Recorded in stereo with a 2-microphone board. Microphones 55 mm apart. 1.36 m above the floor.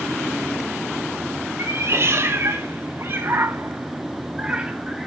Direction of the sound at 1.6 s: 55° right (ahead or behind).